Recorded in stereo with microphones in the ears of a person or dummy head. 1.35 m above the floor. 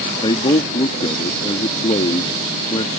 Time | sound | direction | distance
0.2 | a man speaking | 30° left (ahead or behind) | ?